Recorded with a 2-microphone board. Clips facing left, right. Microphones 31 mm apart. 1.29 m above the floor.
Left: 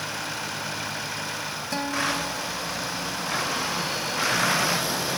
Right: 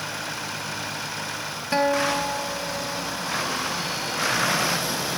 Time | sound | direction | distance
1.7 | a guitar | 35° right (ahead or behind) | 1.3 m